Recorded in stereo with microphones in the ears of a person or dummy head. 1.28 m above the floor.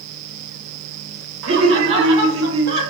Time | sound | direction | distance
1.4 | laughter | 60° right (ahead or behind) | 1.6 m